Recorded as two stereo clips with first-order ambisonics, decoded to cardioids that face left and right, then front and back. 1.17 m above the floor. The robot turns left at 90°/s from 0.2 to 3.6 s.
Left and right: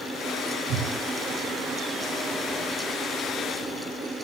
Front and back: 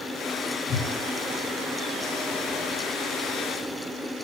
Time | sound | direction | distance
0.7 | a whoosh | 90° right | 8.5 m